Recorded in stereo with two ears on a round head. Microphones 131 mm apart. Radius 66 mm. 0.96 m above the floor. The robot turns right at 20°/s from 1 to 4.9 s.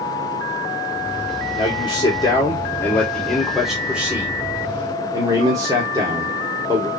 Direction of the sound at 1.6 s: 140° left.